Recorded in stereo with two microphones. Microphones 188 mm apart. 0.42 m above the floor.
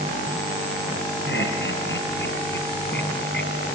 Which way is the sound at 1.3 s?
75° left (ahead or behind).